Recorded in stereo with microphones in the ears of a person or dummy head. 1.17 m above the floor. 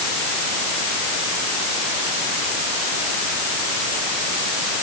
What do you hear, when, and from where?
Only background noise.